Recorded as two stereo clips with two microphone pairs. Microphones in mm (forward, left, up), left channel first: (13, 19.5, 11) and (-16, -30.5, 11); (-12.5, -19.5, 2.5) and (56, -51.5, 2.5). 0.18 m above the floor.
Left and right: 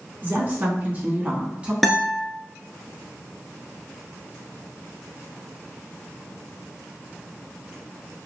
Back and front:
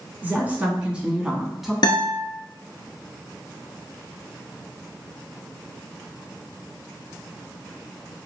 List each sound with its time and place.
0.2 s a woman speaking: 85° right, 2 m; by 1.7 s 110° right, 1.6 m
1.8 s a guitar: 150° left, 1.0 m